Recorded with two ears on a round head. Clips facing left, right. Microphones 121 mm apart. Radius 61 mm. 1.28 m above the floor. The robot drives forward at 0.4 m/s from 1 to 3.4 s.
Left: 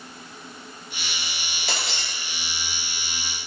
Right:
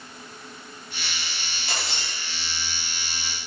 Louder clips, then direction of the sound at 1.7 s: Left 1 dB; 60° left (ahead or behind).